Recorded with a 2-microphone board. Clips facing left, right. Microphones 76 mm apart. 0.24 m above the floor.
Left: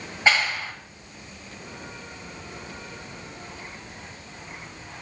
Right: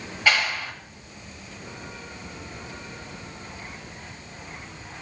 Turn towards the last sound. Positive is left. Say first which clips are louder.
# left 1 dB
turn(degrees=20)  # may be behind; listen again after turning